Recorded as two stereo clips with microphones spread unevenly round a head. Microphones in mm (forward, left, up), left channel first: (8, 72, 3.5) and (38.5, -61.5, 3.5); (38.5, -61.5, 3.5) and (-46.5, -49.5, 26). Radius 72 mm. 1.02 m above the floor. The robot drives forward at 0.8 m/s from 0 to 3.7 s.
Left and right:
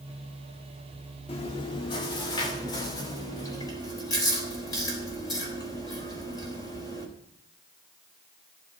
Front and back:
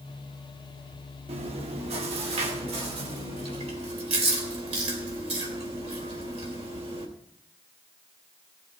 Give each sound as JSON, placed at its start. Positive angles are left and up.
{"t": 1.3, "sound": "chewing", "azimuth_deg": 160, "distance_m": 1.8}